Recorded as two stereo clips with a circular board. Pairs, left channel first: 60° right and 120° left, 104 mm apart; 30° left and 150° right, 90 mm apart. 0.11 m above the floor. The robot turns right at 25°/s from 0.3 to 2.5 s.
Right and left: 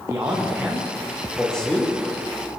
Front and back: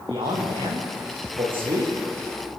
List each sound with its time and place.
0.1 s a man speaking: 175° right, 6 m; by 1.9 s 135° right, 6 m